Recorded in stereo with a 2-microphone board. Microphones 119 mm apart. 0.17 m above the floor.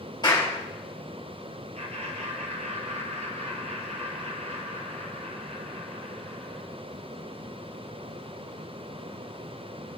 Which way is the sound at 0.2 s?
35° left (ahead or behind).